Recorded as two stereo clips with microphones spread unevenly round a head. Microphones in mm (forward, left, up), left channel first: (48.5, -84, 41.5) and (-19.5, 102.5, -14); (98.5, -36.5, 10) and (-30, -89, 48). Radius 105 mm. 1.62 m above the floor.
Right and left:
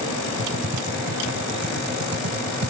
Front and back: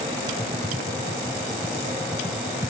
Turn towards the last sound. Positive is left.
turn(degrees=130)